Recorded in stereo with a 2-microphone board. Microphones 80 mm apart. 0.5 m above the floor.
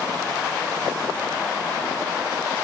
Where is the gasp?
No gasp in this recording.